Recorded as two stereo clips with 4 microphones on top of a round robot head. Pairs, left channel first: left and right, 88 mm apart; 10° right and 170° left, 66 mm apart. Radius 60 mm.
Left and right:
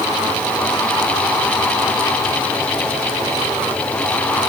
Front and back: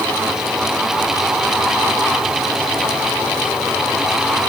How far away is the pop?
I don't hear a pop.